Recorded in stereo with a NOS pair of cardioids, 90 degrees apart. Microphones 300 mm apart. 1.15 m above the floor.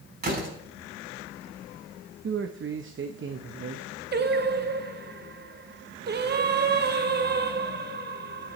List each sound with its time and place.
0.2 s a door slam: 30° right, 6.5 m
2.2 s a man speaking: 40° right, 1.0 m
4.1 s singing: 35° right, 0.9 m